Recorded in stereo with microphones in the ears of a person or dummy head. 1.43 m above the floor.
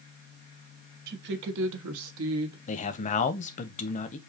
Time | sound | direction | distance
1.1 | a woman speaking | 50° right (ahead or behind) | 1.1 m
2.7 | a man speaking | 30° left (ahead or behind) | 0.6 m